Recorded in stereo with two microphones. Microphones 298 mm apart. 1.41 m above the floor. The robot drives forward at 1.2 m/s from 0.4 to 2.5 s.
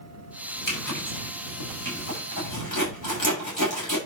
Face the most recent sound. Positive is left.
turn(degrees=85)